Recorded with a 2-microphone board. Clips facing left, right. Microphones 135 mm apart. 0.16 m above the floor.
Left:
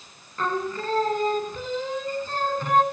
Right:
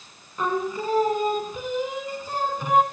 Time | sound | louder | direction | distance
0.4 | singing | right 2 dB | 10° right (ahead or behind) | 1.6 m